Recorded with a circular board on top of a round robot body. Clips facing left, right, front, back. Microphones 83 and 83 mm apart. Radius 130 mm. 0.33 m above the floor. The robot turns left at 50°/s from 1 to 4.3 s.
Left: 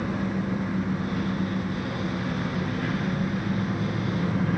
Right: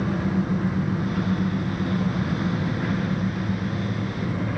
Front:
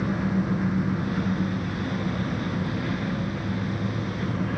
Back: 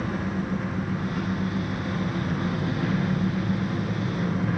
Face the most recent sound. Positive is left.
turn(degrees=120)